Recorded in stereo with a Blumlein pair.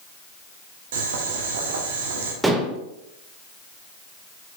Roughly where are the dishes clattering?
Ahead.